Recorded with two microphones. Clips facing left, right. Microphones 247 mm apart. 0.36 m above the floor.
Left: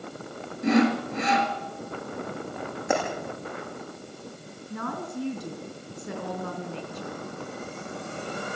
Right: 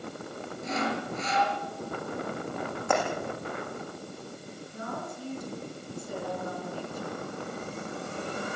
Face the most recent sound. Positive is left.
turn(degrees=75)  # may be behind; listen again after turning